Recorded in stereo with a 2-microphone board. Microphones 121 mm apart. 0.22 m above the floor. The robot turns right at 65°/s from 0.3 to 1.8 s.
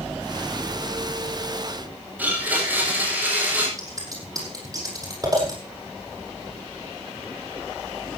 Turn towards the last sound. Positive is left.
turn(degrees=-30)  # may be behind; listen again after turning